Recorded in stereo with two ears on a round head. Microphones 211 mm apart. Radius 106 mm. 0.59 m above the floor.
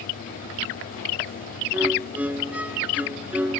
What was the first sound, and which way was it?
A violin, 5° right (ahead or behind).